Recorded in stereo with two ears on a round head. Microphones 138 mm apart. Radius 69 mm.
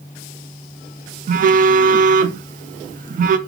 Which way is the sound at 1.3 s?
55° right (ahead or behind).